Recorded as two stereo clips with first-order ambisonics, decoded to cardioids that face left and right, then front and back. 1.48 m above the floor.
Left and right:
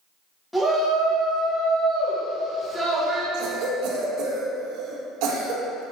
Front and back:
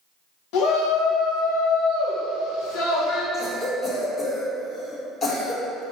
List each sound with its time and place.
0.5 s a shout: 5° left, 1.9 m
3.3 s a cough: 65° right, 1.5 m